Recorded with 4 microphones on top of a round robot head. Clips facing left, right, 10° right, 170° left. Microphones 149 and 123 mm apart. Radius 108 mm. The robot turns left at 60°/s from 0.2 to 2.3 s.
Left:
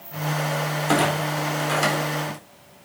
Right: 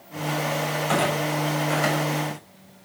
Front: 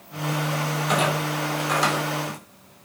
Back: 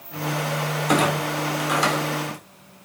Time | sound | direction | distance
0.9 | a clunk | 135° left | 3.5 m